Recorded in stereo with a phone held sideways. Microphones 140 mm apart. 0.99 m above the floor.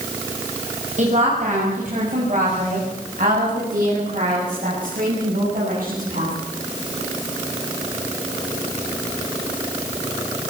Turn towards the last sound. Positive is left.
turn(degrees=-70)  # may be behind; listen again after turning